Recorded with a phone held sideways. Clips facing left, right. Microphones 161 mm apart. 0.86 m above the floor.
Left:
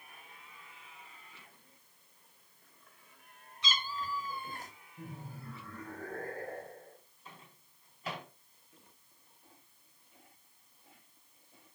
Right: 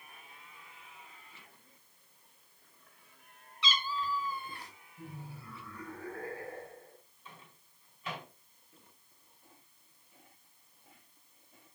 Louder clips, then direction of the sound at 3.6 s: Right 3 dB; 45° left (ahead or behind).